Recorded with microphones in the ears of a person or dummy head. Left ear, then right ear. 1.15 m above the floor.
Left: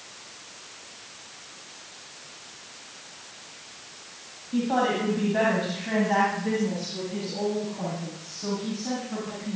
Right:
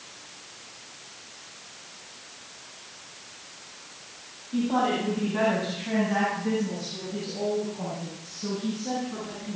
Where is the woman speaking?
10° left (ahead or behind), 8.5 m; by 9.6 s 40° left (ahead or behind), 12 m.